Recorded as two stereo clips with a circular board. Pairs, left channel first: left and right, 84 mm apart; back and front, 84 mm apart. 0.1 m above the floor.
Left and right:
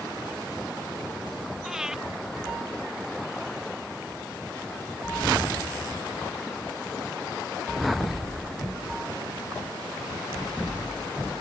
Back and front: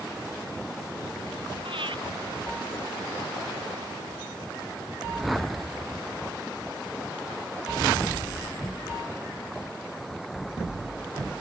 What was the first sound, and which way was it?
Breathing, 5° right.